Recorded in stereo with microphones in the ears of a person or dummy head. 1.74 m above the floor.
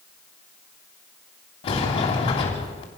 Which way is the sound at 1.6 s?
35° left (ahead or behind).